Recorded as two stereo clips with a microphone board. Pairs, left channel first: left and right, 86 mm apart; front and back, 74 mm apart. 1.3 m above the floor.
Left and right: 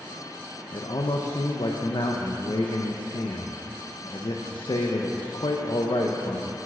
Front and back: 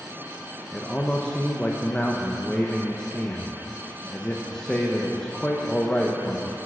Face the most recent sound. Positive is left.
turn(degrees=75)